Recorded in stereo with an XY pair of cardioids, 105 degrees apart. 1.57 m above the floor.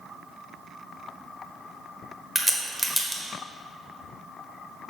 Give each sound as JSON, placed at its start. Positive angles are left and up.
{"t": 2.4, "sound": "a crack", "azimuth_deg": 5, "distance_m": 1.2}